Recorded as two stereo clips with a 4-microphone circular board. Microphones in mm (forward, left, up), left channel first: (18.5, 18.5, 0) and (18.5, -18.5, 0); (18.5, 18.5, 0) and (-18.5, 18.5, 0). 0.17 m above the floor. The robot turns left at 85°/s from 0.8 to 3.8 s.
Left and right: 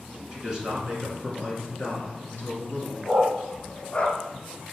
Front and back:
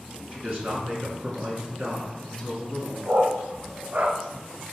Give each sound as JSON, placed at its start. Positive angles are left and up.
{"t": 0.3, "sound": "a man speaking", "azimuth_deg": -150, "distance_m": 1.9}
{"t": 3.0, "sound": "a dog barking", "azimuth_deg": -155, "distance_m": 0.8}